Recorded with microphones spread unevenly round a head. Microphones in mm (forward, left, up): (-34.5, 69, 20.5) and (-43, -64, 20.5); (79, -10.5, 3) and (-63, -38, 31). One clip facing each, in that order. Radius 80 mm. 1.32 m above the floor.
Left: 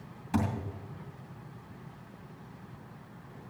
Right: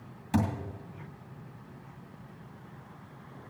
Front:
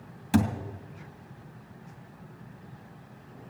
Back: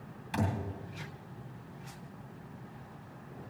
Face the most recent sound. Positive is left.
turn(degrees=-25)